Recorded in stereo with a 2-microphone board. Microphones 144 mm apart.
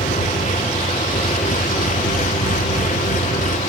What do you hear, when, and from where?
0.0 s an engine running: 65° left (ahead or behind)